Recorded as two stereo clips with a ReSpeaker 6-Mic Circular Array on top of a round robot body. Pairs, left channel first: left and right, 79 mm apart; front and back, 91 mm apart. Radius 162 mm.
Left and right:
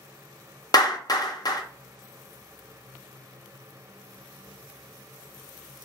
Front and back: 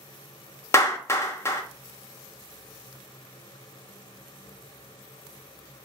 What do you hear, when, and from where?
0.7 s a clap: 60° left, 1.1 m